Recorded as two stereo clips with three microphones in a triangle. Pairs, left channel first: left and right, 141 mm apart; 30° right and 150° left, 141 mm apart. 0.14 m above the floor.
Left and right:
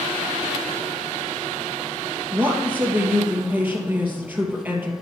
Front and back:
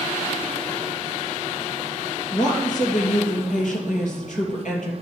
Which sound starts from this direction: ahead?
A woman speaking, at 2.3 s.